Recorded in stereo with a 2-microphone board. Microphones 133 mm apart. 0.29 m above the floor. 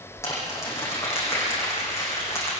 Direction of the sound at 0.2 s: 20° left (ahead or behind).